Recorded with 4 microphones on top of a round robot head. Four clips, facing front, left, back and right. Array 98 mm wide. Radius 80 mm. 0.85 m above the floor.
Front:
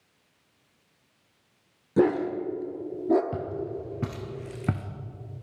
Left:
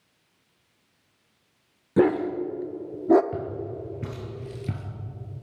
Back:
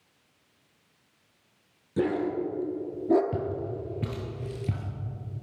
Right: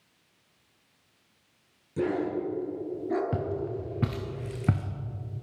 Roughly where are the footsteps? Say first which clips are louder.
Right 1 dB, back 1 dB; right.